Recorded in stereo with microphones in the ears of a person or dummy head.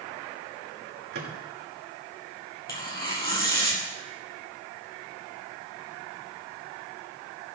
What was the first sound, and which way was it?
A microwave, 50° right (ahead or behind).